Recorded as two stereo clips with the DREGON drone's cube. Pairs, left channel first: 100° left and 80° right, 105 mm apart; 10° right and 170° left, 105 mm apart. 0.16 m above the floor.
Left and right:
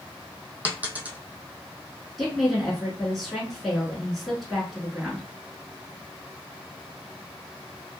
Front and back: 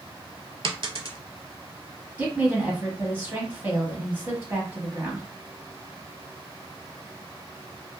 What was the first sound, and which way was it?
A dropped coin, 150° right.